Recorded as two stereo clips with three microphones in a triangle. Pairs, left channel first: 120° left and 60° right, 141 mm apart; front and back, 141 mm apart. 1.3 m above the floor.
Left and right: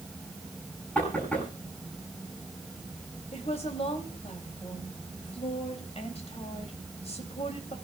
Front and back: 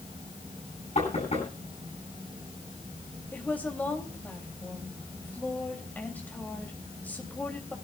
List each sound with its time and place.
0.9 s knocking: 40° left, 9.5 m
3.3 s a woman speaking: 80° left, 3 m